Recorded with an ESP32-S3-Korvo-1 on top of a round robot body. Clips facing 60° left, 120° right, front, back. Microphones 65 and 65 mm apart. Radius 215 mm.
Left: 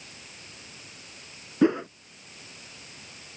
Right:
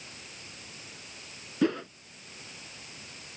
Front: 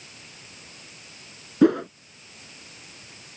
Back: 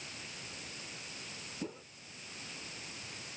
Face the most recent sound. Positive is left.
turn(degrees=-10)